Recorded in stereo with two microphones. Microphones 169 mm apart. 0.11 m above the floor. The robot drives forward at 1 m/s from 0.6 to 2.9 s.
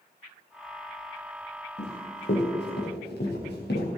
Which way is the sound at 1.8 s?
90° left.